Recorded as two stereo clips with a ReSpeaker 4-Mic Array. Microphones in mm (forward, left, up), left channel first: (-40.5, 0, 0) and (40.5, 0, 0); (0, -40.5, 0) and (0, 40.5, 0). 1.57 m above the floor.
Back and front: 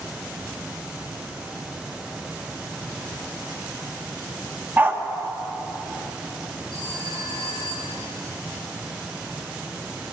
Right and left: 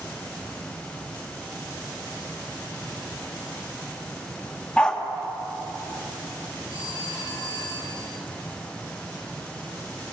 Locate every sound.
4.8 s a dog barking: 25° right, 1.1 m
6.7 s a phone ringing: 90° left, 7 m